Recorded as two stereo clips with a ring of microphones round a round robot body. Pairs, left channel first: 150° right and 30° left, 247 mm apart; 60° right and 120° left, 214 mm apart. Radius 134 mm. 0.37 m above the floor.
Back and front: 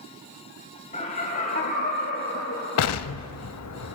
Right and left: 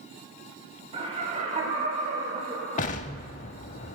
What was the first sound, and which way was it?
Laughter, 165° left.